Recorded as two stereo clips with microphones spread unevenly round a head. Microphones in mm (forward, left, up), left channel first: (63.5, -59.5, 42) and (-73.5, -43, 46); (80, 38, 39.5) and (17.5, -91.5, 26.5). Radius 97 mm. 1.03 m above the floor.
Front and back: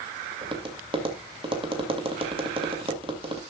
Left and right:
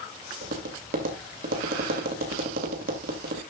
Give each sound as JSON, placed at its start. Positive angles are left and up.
{"t": 0.4, "sound": "tapping", "azimuth_deg": -135, "distance_m": 2.0}